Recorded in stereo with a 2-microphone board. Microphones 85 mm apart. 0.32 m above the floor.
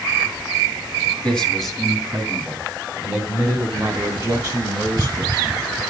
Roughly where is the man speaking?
Centre.